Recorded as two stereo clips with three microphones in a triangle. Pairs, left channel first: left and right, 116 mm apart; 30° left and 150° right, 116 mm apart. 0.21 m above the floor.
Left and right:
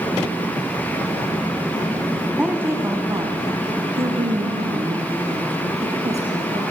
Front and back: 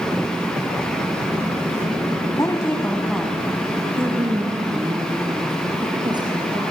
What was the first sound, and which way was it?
A woman speaking, 10° right.